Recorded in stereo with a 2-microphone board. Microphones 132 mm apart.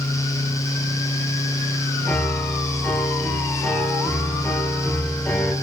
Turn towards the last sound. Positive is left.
turn(degrees=10)  # may be behind; listen again after turning